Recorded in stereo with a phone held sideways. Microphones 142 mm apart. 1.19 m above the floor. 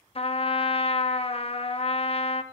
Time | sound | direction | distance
0.1 | a trumpet | 45° left (ahead or behind) | 0.6 m